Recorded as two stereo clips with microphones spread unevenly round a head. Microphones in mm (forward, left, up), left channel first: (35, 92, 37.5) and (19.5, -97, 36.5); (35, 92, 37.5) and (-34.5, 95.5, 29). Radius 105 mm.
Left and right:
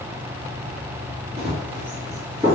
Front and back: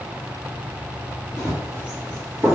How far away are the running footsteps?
About 1.8 m.